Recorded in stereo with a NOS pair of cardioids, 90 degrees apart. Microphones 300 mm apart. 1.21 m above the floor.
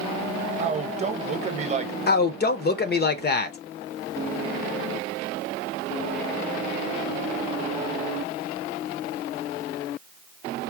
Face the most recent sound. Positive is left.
turn(degrees=35)